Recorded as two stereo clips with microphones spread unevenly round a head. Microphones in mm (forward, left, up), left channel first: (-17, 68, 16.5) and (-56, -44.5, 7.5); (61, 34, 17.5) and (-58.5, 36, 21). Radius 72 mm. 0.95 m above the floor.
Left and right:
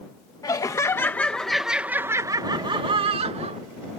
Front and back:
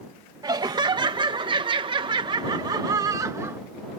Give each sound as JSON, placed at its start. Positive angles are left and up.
{"t": 0.4, "sound": "laughter", "azimuth_deg": 130}